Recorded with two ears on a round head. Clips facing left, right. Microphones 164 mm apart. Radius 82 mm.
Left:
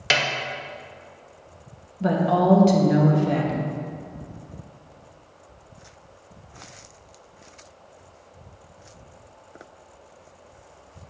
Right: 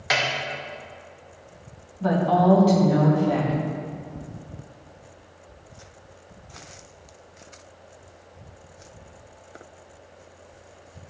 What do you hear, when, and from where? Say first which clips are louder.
0.1 s a snare drum: left 1 dB; 35° left (ahead or behind), 0.7 m
2.0 s a woman speaking: even; 30° left (ahead or behind), 1.0 m